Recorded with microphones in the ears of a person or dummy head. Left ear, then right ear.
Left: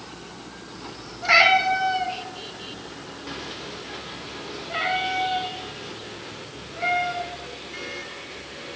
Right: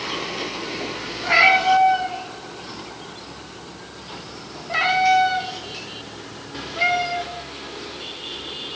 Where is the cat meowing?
70° left (ahead or behind), 2 m; by 7.2 s 70° right (ahead or behind), 2.5 m.